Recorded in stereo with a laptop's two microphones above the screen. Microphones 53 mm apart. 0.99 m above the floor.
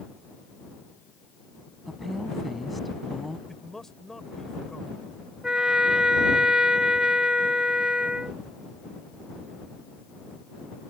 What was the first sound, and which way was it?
A woman speaking, centre (ahead or behind).